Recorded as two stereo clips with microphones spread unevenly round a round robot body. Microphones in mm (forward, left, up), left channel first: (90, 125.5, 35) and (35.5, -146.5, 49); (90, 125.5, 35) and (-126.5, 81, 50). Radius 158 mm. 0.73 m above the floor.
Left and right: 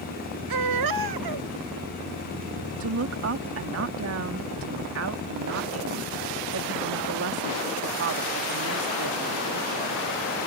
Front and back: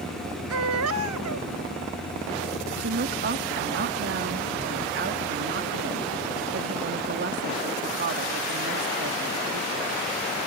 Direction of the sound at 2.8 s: 130° right.